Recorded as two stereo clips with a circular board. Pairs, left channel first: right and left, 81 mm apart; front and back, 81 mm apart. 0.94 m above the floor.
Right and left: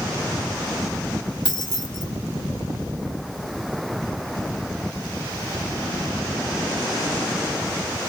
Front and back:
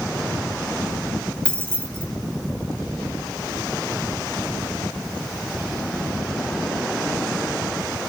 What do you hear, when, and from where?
1.4 s keys jangling: 75° right, 1.7 m